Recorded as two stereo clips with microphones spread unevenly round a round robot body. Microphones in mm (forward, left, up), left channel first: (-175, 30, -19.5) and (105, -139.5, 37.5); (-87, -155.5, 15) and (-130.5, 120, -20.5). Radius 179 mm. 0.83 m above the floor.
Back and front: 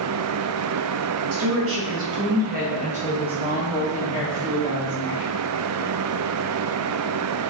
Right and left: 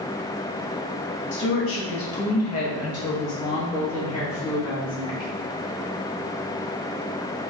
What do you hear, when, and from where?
1.3 s a woman speaking: 50° right, 1.0 m; by 5.3 s 120° right, 2.5 m